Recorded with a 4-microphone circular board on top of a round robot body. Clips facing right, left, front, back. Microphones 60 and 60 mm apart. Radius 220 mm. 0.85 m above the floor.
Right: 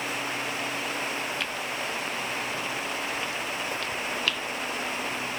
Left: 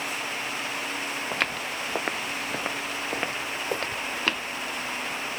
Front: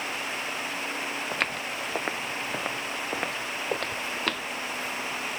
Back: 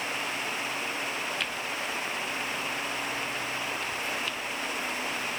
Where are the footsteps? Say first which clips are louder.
Left 2 dB, front 2 dB; 45° left; by 4.5 s 30° left.